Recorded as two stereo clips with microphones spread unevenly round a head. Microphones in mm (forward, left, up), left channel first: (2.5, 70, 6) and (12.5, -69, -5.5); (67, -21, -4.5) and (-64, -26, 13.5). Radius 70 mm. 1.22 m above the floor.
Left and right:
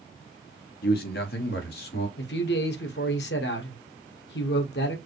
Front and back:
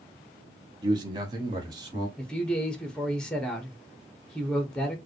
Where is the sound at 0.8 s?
115° left, 1.0 m.